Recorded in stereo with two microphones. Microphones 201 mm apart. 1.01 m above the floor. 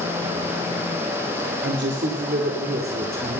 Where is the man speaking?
65° right (ahead or behind), 2.5 m; by 3.4 s 40° right (ahead or behind), 2.5 m.